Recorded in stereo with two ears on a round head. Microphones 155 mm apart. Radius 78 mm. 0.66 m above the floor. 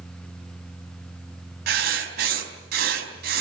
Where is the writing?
60° right (ahead or behind), 4 m.